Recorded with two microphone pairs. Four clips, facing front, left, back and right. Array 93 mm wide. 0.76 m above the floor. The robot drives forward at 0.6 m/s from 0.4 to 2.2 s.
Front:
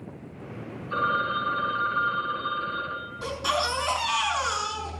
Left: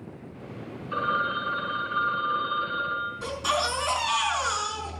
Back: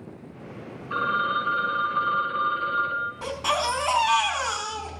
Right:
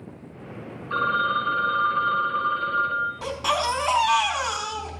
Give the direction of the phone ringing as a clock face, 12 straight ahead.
4 o'clock.